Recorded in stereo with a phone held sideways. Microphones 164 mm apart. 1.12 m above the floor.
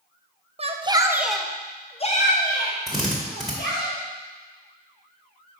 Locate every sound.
0.6 s a shout: 40° right (ahead or behind), 0.7 m; by 3.9 s 70° left (ahead or behind), 1.6 m
2.9 s a drill: centre (ahead or behind), 1.7 m